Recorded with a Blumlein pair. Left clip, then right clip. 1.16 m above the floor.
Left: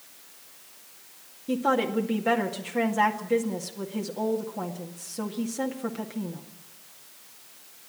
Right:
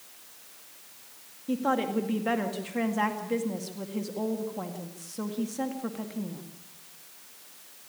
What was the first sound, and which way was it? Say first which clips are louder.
A woman speaking: left 3 dB; 5° left.